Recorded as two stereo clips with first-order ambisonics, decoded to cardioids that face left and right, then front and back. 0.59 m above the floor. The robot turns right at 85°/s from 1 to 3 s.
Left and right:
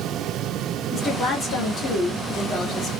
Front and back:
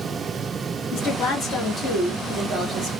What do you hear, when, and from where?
0.9 s a woman speaking: 5° left, 1.4 m; by 2.9 s 170° left, 1.4 m